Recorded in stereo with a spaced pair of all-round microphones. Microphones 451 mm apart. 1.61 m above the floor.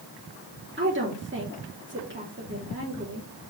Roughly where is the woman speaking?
Right.